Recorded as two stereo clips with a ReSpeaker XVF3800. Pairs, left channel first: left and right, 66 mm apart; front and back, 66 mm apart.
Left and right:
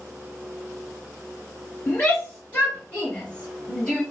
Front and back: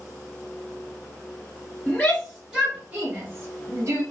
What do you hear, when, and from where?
1.9 s a shout: 60° left, 1.3 m; by 4.0 s 165° left, 1.9 m